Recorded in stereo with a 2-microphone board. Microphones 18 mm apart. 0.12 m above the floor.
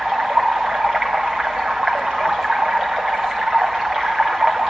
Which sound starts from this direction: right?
Running water, at 0.0 s.